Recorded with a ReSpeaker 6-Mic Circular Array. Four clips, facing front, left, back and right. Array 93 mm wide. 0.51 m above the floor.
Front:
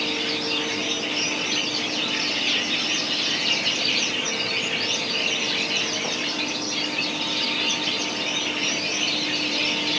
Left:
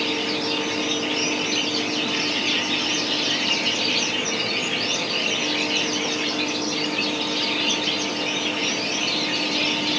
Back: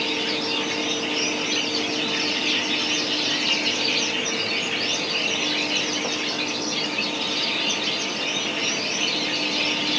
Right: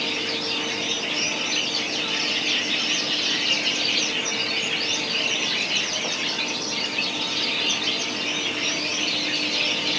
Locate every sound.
Only background noise.